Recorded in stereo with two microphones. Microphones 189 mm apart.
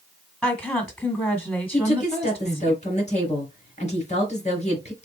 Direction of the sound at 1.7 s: 35° left (ahead or behind).